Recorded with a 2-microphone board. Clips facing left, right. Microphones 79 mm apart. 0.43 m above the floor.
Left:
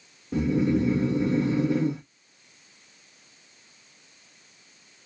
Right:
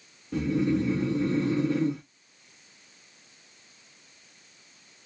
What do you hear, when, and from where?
0.3 s snoring: 15° left (ahead or behind), 1.1 m